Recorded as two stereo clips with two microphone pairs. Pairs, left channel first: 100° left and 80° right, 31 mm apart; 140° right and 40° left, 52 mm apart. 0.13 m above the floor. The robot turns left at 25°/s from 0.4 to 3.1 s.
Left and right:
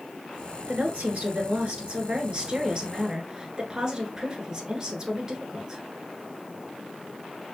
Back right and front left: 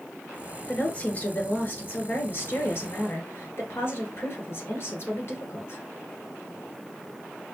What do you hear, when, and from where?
0.7 s a woman speaking: 85° right, 1.8 m; by 5.8 s 145° right, 1.8 m